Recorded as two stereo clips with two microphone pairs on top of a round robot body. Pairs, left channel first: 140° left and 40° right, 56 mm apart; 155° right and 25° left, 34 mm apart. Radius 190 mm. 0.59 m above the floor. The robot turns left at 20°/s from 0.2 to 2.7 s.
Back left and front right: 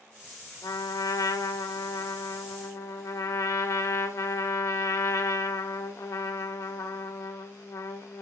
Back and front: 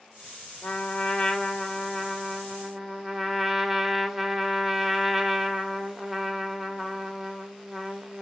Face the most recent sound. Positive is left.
turn(degrees=110)